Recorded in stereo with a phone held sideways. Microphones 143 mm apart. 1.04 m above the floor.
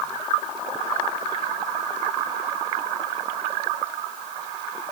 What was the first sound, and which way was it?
Only background noise.